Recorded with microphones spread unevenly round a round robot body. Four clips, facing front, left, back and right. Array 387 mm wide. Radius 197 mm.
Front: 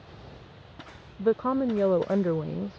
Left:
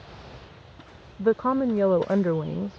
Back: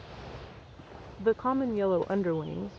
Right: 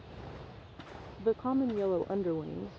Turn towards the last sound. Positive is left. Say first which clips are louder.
# left 7 dB, front 2 dB
turn(degrees=65)